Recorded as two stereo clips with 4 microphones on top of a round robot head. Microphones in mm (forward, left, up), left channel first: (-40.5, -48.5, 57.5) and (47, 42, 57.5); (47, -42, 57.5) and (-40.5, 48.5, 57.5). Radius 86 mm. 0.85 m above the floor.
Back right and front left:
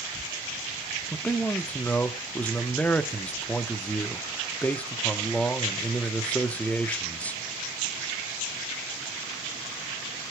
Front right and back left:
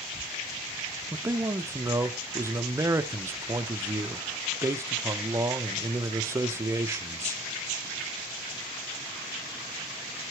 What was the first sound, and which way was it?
A man speaking, 165° left.